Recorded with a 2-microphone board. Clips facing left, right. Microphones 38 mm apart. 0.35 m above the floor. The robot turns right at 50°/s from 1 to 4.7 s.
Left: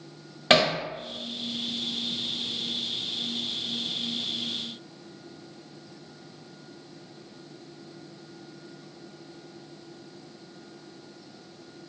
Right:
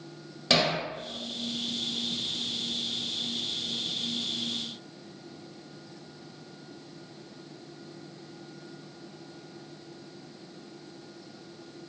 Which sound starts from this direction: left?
Hammering, at 0.5 s.